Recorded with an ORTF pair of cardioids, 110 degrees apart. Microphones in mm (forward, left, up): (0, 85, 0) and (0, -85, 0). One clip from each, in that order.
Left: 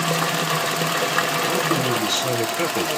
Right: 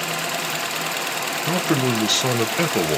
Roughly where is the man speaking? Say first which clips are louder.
Left 1 dB; ahead right.